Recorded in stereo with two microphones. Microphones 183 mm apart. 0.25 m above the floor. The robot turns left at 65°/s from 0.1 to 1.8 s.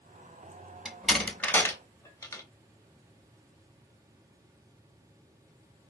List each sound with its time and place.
0.8 s a door slam: 5° right (ahead or behind), 0.7 m; by 2.4 s 15° left (ahead or behind), 0.7 m